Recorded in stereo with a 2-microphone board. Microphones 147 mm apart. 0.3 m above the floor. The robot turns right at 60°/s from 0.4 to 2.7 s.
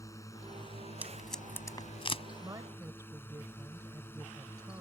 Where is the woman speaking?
25° right (ahead or behind).